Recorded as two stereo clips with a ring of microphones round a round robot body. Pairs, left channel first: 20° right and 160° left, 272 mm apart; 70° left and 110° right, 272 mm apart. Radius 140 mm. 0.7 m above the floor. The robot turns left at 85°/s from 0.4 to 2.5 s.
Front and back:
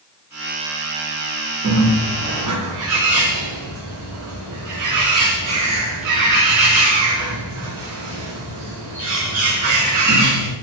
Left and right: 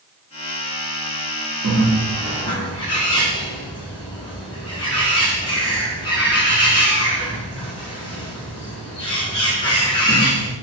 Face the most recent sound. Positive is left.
turn(degrees=140)